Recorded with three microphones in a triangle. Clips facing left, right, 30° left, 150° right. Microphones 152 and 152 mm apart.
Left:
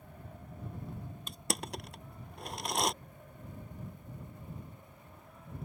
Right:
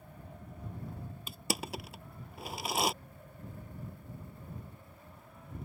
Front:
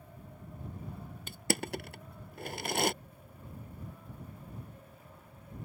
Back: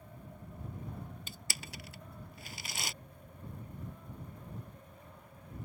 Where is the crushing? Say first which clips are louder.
Right 1 dB, front 14 dB; 5° right.